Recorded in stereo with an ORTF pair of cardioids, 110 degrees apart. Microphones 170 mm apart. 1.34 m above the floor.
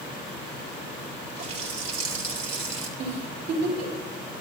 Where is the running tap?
45° right, 4 m.